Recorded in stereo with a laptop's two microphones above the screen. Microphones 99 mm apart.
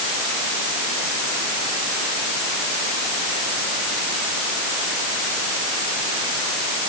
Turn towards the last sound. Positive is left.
No sound to turn to.